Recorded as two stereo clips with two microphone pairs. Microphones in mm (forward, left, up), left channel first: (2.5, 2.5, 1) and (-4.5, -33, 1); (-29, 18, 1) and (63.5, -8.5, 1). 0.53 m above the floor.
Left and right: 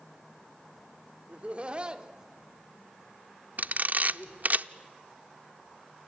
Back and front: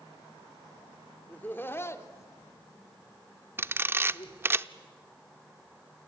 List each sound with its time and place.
1.3 s laughter: 130° right, 1.8 m; by 4.6 s 145° left, 2.5 m
3.6 s a camera shutter: 75° right, 0.5 m